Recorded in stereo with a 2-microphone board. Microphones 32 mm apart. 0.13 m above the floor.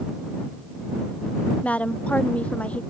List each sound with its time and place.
1.6 s a woman speaking: 45° left (ahead or behind)